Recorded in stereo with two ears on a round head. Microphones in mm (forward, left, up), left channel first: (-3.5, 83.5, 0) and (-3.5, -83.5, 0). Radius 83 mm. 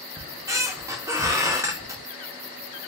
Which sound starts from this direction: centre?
A squeak, at 0.2 s.